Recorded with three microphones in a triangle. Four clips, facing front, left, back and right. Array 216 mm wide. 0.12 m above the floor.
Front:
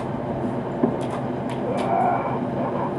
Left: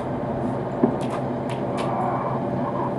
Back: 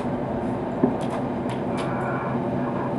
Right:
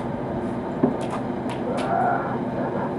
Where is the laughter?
40° right.